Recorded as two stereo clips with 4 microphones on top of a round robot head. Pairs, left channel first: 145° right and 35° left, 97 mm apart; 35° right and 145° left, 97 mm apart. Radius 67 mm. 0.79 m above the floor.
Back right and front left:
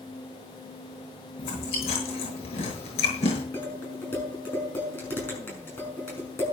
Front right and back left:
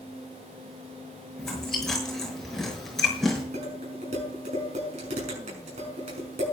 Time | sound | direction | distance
1.4 | chewing | 120° right | 6.5 m
3.5 | dishes clattering | 145° left | 6.5 m